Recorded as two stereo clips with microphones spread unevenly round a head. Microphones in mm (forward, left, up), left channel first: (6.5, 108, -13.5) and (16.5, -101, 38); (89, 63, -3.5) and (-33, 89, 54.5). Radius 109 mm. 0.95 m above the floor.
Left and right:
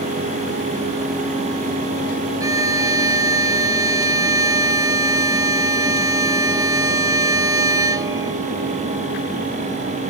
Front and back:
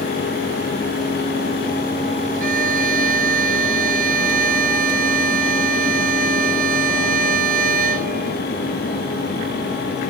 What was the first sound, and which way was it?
A violin, 160° right.